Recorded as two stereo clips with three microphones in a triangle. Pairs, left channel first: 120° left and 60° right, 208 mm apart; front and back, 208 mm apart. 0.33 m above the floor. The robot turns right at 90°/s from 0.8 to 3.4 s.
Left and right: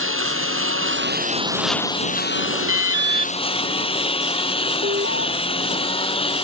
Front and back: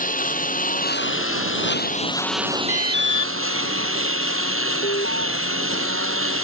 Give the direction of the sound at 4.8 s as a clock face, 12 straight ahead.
1 o'clock.